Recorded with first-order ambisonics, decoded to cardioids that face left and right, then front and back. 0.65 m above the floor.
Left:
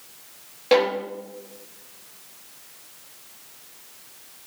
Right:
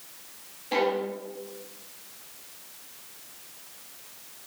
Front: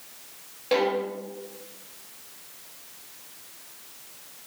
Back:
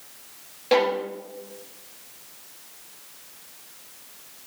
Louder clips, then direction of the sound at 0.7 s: Left 6 dB, back 3 dB; 100° left.